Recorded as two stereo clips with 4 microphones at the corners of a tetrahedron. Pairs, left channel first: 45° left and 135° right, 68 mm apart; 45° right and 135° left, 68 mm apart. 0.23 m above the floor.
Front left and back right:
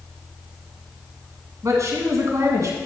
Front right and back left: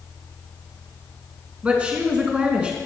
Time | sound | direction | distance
1.6 | a woman speaking | 155° right | 1.9 m